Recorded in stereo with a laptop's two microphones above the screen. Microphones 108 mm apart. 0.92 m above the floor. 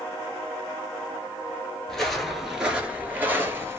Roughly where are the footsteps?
Centre.